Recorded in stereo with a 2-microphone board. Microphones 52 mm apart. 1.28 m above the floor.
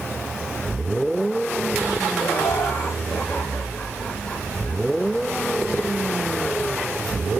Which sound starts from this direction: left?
Laughter, at 2.2 s.